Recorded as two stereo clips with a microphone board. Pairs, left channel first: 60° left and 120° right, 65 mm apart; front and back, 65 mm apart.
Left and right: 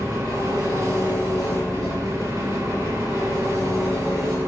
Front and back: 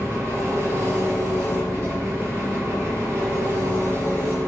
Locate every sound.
0.0 s an engine running: 130° right, 5 m